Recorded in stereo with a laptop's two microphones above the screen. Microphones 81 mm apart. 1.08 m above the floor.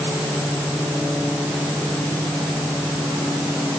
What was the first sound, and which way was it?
Only background noise.